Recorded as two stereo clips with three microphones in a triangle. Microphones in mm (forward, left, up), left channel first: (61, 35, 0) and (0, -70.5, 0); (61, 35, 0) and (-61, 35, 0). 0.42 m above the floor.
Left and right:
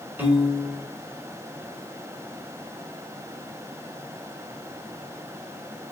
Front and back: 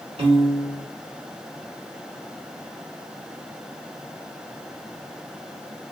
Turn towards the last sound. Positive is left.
turn(degrees=175)